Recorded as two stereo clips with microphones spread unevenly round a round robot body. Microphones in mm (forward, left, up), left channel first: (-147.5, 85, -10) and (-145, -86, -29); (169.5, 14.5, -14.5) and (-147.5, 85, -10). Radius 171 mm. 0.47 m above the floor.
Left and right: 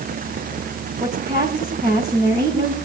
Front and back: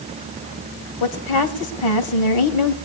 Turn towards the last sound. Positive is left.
turn(degrees=-15)